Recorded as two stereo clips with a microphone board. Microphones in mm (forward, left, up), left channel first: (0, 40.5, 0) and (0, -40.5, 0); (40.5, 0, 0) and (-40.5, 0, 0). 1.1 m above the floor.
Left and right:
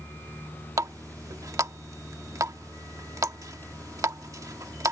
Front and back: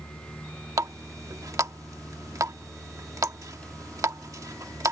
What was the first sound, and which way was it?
A running tap, 135° right.